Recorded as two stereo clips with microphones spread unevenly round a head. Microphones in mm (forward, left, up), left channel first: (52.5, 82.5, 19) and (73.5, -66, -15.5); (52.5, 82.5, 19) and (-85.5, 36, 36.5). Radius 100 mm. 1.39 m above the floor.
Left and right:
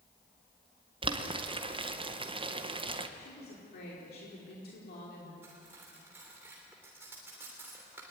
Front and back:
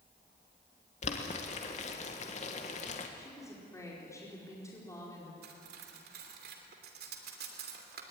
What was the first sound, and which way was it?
Boiling, 30° right.